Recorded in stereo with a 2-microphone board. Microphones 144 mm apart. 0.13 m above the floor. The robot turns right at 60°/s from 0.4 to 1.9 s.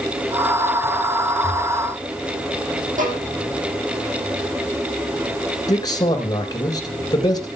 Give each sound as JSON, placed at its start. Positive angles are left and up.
{"t": 3.0, "sound": "a violin", "side_deg": -65, "distance_m": 3.0}
{"t": 5.7, "sound": "a man speaking", "side_deg": 25, "distance_m": 2.5}